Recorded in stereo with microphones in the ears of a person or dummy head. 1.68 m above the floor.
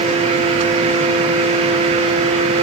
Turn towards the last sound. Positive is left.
No sound to turn to.